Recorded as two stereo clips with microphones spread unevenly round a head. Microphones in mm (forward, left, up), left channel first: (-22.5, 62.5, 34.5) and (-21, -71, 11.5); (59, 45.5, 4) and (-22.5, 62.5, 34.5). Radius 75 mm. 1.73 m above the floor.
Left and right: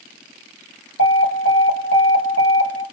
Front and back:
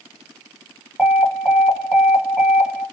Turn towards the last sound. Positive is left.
turn(degrees=80)